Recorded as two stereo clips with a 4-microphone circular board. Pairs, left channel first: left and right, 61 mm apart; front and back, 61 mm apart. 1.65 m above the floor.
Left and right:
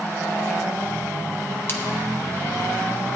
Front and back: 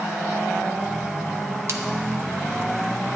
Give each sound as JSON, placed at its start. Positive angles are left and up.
{"t": 1.7, "sound": "a splash", "azimuth_deg": 140, "distance_m": 1.0}